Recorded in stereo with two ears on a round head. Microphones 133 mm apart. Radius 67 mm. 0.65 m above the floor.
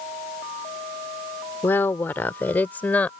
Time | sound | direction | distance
1.6 | a woman speaking | 15° left (ahead or behind) | ?